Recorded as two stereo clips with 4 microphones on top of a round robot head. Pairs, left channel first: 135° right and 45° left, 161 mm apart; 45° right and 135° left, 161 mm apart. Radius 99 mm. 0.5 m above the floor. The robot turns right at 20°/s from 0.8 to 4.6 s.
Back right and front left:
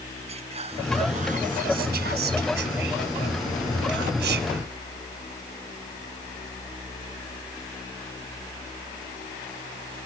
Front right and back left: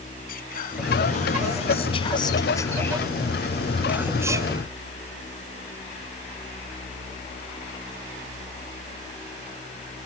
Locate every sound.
0.3 s whispering: 10° right; by 4.6 s 70° left